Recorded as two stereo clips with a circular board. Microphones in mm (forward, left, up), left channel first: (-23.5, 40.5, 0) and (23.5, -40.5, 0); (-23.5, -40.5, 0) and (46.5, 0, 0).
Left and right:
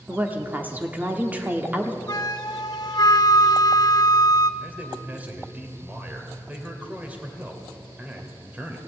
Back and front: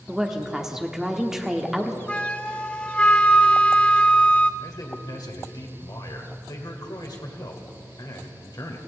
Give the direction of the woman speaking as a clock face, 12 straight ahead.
1 o'clock.